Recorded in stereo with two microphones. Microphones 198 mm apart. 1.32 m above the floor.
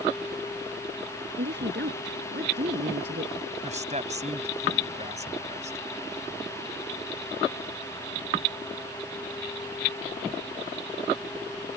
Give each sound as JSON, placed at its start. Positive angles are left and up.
{"t": 1.4, "sound": "a woman speaking", "side_deg": -60}
{"t": 3.6, "sound": "a man speaking", "side_deg": -35}